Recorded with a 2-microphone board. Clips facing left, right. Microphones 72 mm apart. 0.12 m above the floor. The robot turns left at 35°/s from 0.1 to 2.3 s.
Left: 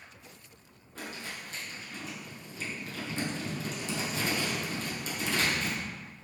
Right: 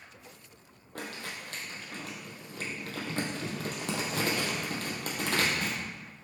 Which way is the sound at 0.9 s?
65° right (ahead or behind).